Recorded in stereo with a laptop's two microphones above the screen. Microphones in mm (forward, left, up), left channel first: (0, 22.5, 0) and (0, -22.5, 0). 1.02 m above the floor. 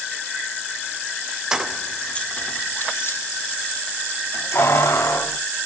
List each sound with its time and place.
1.5 s keys jangling: 15° right (ahead or behind), 0.6 m; by 5.4 s 85° left, 2.0 m